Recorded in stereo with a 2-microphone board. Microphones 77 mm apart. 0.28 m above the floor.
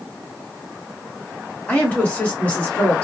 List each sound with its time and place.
1.7 s a woman speaking: 20° left (ahead or behind), 1.5 m